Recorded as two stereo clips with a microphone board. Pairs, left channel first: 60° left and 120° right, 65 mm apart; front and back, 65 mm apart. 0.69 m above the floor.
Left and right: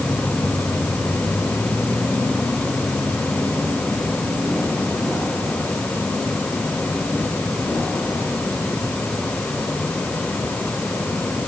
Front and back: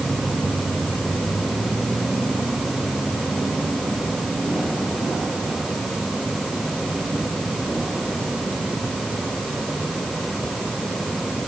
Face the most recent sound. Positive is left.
No sound to turn to.